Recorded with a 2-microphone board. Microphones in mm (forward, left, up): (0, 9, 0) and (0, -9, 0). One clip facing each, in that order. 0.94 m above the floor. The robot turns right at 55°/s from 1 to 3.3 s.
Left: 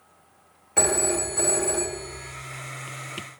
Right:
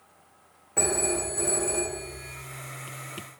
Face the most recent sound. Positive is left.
turn(degrees=-150)